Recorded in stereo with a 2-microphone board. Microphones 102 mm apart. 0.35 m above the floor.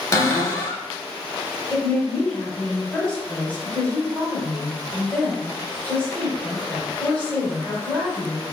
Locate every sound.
0.1 s a cupboard door: 30° left (ahead or behind), 0.7 m
1.7 s a woman speaking: 15° left (ahead or behind), 1.3 m